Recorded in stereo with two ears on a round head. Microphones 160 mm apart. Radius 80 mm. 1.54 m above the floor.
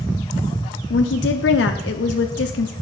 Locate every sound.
0.9 s a woman speaking: 70° left (ahead or behind), 0.5 m